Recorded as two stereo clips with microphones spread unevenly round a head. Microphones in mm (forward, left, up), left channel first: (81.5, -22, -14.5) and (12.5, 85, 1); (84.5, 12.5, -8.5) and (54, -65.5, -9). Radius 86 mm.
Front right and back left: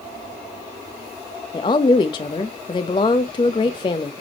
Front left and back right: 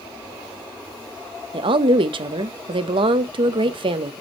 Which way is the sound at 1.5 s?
115° right.